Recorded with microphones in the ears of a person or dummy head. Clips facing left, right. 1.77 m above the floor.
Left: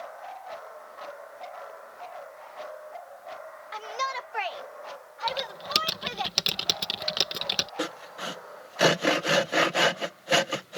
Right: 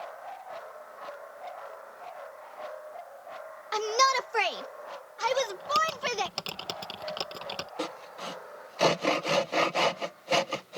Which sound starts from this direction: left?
Typing on a keyboard, at 5.3 s.